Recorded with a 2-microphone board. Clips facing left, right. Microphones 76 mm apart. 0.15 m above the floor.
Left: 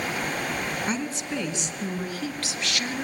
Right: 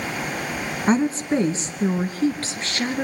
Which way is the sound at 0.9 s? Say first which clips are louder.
Right 9 dB; 35° right (ahead or behind).